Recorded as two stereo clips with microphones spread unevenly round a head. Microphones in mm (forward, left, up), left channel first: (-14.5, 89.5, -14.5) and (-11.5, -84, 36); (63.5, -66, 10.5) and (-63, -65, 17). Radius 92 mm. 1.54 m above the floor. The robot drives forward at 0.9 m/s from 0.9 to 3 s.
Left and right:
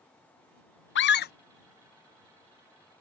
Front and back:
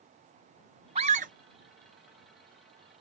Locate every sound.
0.9 s a scream: 120° left; by 1.3 s 130° left